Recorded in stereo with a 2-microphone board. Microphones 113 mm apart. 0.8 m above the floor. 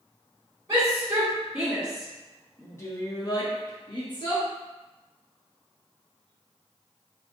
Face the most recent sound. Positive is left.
turn(degrees=45)  # may be behind; listen again after turning